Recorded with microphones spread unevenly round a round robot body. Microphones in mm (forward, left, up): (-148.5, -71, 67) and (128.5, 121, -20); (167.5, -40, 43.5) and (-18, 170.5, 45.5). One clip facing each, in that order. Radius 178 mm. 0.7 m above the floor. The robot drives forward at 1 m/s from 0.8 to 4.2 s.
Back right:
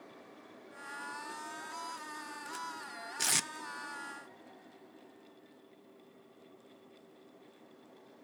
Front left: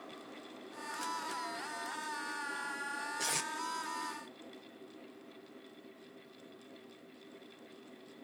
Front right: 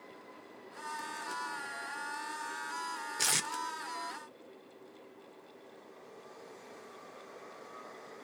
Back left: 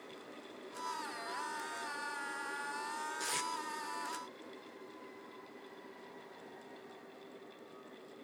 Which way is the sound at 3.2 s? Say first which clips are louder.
Back right 2 dB, front right 5 dB; 85° right.